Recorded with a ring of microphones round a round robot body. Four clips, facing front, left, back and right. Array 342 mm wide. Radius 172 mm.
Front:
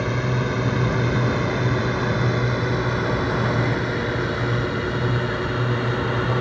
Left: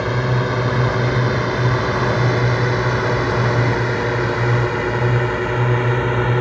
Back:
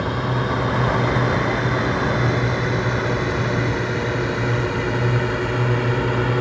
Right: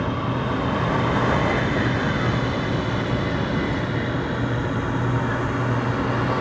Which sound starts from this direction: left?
A drone, at 0.0 s.